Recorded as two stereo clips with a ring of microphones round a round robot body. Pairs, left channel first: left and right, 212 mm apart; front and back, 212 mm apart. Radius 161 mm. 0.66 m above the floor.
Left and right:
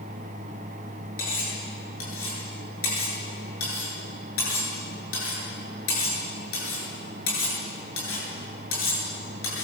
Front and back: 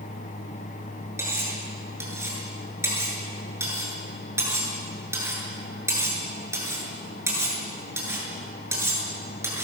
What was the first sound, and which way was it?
Cutlery clinking, 100° left.